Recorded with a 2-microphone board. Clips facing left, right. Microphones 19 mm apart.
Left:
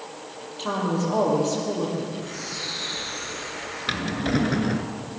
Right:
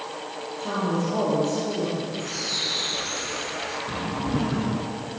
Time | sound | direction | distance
0.6 | a woman speaking | 35° left (ahead or behind) | 8.5 m
2.2 | a bird | 80° right | 8 m
3.9 | a drawer | 65° left (ahead or behind) | 1.8 m